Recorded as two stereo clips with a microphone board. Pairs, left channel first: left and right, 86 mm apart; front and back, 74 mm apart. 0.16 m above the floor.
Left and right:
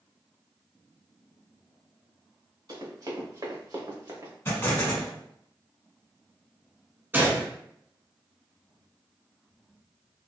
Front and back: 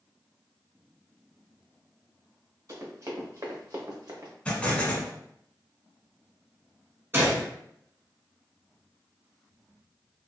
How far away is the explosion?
About 1.1 m.